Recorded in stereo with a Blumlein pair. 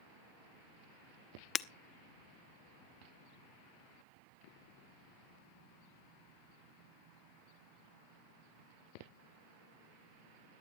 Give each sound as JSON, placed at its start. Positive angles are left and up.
{"t": 1.6, "sound": "breaking glass", "azimuth_deg": 25, "distance_m": 0.7}